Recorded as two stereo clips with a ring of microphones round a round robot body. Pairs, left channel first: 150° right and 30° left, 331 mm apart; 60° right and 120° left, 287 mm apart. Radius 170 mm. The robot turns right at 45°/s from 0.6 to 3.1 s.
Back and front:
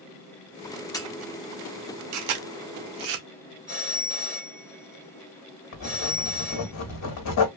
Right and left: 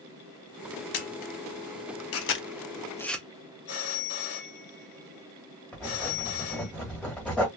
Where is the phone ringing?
40° right, 1.4 m.